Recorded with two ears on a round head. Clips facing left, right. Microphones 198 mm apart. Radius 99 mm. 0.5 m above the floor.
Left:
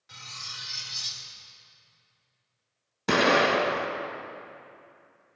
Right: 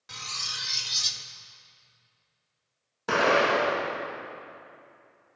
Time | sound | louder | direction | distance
0.1 | cutlery clinking | right 5 dB | 60° right (ahead or behind) | 0.6 m
3.1 | an explosion | left 1 dB | 30° left (ahead or behind) | 1.2 m